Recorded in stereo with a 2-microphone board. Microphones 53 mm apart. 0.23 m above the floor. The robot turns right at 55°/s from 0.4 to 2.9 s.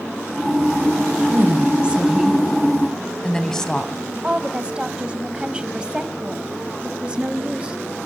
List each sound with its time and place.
1.3 s a woman speaking: 70° right, 1.7 m; by 3.9 s 20° left, 1.7 m
4.2 s a woman speaking: 20° right (ahead or behind), 1.2 m